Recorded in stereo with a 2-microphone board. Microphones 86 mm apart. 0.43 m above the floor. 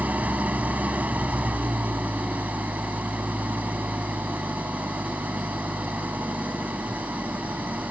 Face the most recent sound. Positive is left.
turn(degrees=-20)  # may be behind; listen again after turning